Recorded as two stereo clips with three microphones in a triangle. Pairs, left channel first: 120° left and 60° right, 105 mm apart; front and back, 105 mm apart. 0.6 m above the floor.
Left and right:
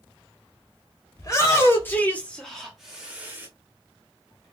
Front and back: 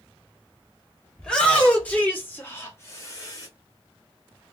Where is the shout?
80° left, 1.7 m; by 3.5 s 5° right, 1.4 m.